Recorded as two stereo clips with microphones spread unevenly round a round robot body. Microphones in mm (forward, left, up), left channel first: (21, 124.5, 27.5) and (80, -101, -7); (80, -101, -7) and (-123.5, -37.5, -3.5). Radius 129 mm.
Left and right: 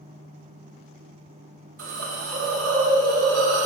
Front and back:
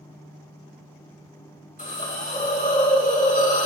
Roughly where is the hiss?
Ahead right.